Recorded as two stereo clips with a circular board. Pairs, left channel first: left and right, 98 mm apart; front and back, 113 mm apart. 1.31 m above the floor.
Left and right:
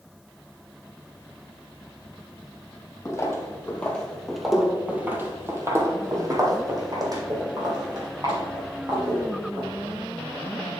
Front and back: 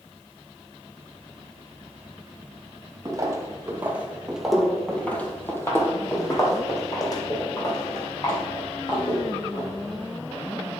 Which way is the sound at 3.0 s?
135° left.